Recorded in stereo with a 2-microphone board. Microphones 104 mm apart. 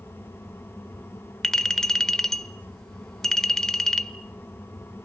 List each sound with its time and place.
1.4 s a clink: 5° left (ahead or behind), 1.1 m